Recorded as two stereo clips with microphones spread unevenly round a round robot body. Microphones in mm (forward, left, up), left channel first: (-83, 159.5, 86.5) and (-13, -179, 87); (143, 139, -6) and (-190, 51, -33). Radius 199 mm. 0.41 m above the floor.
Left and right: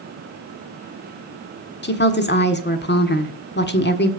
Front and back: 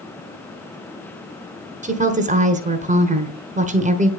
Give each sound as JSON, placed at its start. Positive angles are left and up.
{"t": 1.8, "sound": "a woman speaking", "azimuth_deg": 145, "distance_m": 1.5}